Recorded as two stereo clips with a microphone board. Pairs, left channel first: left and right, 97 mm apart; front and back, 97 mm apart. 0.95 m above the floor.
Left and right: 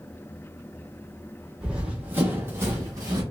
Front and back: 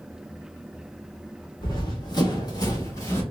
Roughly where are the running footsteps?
Ahead.